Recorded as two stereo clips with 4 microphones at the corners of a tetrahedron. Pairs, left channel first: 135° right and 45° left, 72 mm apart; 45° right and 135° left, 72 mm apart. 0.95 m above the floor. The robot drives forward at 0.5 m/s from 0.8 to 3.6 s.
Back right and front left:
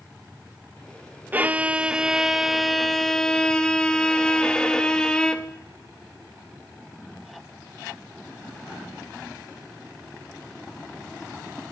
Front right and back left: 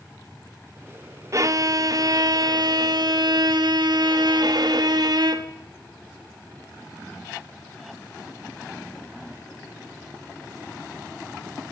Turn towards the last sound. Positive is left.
turn(degrees=145)